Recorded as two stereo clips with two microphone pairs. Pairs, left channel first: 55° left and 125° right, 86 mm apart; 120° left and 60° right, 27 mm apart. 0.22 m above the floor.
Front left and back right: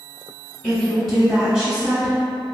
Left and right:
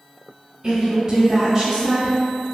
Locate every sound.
0.6 s a woman speaking: 25° right, 1.1 m; by 2.5 s 170° right, 1.2 m